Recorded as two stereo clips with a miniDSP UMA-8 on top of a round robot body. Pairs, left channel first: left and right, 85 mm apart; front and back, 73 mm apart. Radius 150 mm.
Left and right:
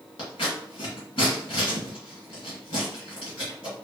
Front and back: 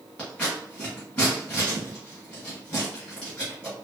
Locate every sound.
0.2 s scissors: 70° left, 1.2 m